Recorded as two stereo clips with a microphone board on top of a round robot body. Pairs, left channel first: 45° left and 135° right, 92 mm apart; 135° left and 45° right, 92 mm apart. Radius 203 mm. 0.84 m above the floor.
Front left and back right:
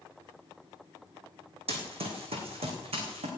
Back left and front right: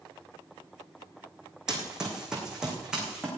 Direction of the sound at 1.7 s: 130° right.